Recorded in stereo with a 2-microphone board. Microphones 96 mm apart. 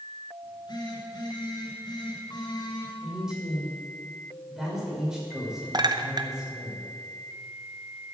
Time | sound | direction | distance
0.4 | a phone buzzing | 50° left (ahead or behind) | 3 m
3.0 | a man speaking | 5° right (ahead or behind) | 6 m
5.7 | a clink | 45° right (ahead or behind) | 0.8 m